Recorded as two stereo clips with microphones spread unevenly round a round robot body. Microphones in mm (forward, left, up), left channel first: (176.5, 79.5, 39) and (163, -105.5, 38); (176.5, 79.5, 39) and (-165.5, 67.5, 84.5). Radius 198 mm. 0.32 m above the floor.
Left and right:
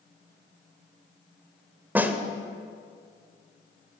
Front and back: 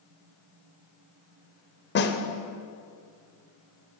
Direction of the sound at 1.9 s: 20° right.